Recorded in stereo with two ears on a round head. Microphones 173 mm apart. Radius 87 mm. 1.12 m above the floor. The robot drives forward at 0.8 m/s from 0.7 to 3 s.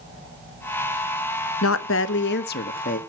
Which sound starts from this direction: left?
A woman speaking, at 1.6 s.